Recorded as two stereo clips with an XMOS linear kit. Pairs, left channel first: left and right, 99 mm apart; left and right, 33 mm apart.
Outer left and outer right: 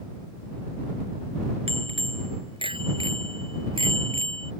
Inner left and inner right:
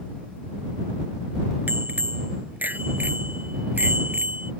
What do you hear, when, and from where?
1.7 s a bicycle bell: 65° right (ahead or behind); by 4.5 s 60° right (ahead or behind)